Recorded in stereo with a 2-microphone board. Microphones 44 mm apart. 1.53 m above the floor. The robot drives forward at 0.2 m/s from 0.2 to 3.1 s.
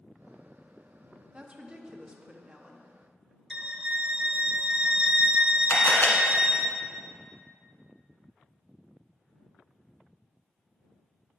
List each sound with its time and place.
1.3 s a woman speaking: 25° right (ahead or behind), 0.8 m; by 2.9 s 20° right (ahead or behind), 1.1 m
3.5 s a violin: 20° right (ahead or behind), 0.8 m
5.7 s a camera shutter: 60° left (ahead or behind), 1.6 m